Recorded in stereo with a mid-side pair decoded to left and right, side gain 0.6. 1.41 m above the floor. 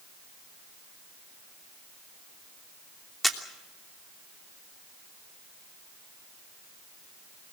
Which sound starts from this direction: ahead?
A camera shutter, at 3.2 s.